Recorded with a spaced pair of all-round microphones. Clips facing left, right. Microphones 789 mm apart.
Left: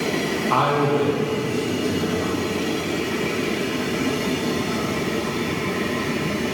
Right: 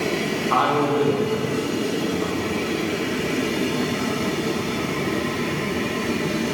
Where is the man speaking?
55° left (ahead or behind), 1.1 m.